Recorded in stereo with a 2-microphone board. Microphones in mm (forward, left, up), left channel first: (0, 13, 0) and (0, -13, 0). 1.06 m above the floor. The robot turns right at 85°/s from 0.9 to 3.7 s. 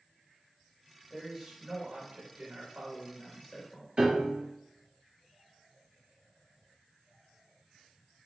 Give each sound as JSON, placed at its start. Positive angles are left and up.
{"t": 1.1, "sound": "a man speaking", "azimuth_deg": 160, "distance_m": 3.0}
{"t": 4.0, "sound": "a piano", "side_deg": -40, "distance_m": 3.0}